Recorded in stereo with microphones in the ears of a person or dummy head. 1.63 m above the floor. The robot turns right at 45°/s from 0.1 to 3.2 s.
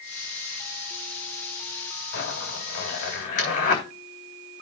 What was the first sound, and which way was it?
A zipper, 65° left (ahead or behind).